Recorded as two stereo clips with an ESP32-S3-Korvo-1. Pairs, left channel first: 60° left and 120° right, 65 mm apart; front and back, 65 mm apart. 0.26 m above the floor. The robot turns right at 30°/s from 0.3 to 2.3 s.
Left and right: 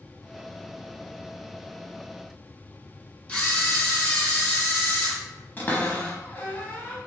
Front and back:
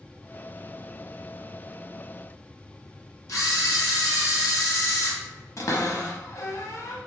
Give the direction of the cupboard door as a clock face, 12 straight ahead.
12 o'clock.